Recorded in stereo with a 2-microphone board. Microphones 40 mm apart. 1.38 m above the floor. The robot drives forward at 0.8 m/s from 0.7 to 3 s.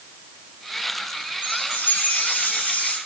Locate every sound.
1.4 s a chime: 55° left (ahead or behind), 8 m; by 3.0 s 50° left (ahead or behind), 8.5 m